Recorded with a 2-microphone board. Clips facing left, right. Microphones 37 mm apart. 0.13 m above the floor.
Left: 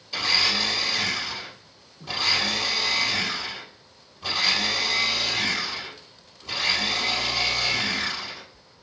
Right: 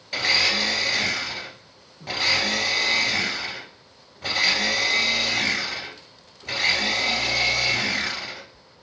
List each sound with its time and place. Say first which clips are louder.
0.1 s a blender: right 2 dB; 55° right (ahead or behind), 2.5 m